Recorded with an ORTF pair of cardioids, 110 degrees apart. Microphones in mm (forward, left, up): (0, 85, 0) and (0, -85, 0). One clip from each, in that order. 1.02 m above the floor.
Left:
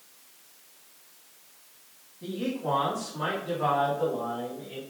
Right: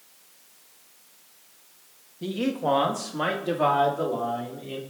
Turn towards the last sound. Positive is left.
turn(degrees=-65)